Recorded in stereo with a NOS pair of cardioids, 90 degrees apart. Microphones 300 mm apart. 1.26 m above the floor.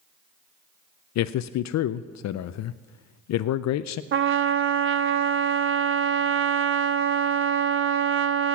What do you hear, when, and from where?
1.1 s a man speaking: 60° left, 0.5 m
4.1 s a trumpet: 40° right, 0.6 m